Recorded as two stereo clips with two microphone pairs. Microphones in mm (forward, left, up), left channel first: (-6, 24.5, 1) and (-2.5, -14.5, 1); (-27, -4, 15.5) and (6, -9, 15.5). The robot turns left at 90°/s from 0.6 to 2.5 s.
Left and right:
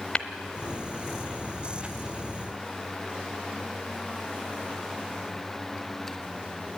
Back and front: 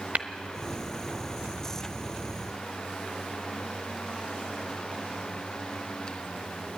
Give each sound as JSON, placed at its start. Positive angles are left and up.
{"t": 0.1, "sound": "tapping", "azimuth_deg": 30, "distance_m": 0.9}